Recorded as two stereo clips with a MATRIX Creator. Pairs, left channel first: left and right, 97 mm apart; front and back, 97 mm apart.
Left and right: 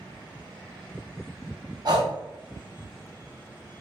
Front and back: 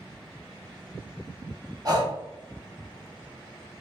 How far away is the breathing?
About 0.9 m.